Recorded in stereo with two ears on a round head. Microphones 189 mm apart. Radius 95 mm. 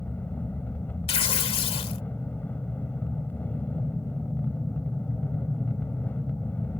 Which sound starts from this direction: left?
Tearing paper, at 1.1 s.